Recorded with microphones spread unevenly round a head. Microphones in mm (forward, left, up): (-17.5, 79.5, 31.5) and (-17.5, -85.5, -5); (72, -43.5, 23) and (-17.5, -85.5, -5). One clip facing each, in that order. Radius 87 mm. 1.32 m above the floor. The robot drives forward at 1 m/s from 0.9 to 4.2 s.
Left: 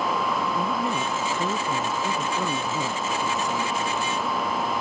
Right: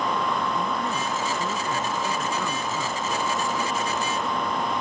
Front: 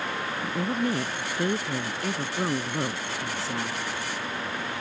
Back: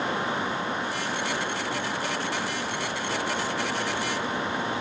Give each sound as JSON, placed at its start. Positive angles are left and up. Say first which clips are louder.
{"t": 0.4, "sound": "a woman speaking", "louder": "left 1 dB, front 2 dB", "azimuth_deg": 15}